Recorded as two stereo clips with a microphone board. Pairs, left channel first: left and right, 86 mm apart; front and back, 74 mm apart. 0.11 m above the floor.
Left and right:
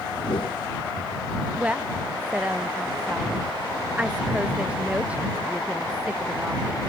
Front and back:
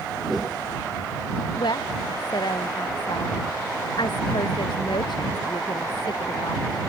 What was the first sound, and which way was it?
A whoosh, 90° left.